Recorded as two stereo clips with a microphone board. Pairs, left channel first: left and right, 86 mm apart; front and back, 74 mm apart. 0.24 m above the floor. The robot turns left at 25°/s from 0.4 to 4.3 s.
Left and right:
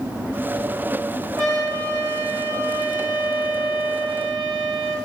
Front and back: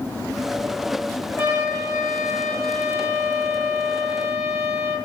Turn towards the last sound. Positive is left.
turn(degrees=175)